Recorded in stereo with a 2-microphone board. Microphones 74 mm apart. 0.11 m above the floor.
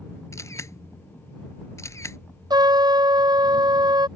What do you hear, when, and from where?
0.3 s a camera shutter: 40° left (ahead or behind)
2.5 s a trumpet: 70° right (ahead or behind)